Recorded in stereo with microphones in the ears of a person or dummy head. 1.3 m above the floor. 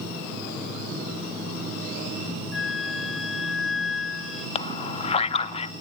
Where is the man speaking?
25° left (ahead or behind), 0.8 m.